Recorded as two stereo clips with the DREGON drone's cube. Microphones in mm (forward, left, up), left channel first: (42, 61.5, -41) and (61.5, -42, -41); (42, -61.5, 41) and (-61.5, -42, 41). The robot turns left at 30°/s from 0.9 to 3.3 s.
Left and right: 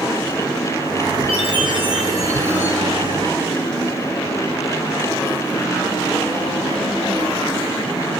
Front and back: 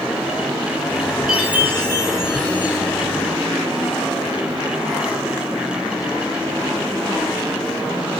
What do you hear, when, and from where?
1.3 s a chime: 105° right, 7 m; by 2.8 s 150° right, 7 m